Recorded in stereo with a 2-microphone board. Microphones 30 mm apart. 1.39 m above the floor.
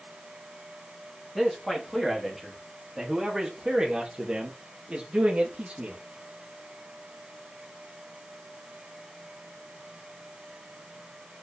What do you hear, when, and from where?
1.4 s a man speaking: 5° left (ahead or behind), 3.5 m; by 6.0 s 45° right (ahead or behind), 3 m